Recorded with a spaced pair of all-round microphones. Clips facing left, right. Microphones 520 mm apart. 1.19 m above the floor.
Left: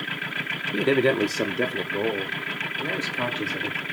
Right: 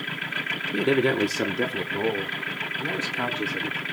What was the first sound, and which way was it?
A man speaking, centre (ahead or behind).